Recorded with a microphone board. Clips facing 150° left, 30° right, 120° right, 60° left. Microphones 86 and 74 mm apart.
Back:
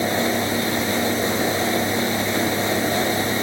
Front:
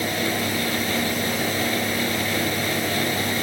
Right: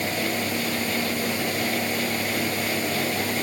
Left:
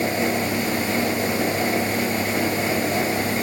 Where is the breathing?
I don't hear breathing.